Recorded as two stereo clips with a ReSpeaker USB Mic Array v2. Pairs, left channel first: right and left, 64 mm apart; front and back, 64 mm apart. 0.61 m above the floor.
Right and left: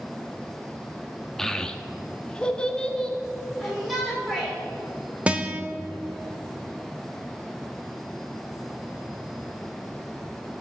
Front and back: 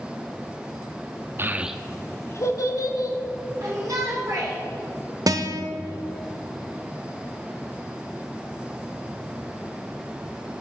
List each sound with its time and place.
1.4 s a child speaking: 170° right, 0.6 m; by 3.2 s 15° right, 1.5 m
3.6 s a shout: straight behind, 2 m
5.3 s a guitar: 160° left, 0.9 m